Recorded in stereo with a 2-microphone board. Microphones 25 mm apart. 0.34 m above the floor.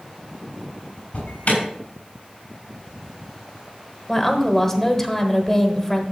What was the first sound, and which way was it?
An alarm, 65° left (ahead or behind).